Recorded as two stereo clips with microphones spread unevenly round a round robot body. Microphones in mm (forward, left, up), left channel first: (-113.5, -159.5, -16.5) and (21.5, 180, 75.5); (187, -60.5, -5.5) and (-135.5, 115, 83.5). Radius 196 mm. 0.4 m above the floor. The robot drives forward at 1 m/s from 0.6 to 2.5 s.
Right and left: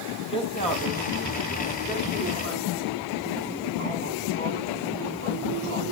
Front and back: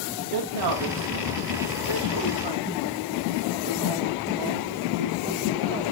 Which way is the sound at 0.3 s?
Straight behind.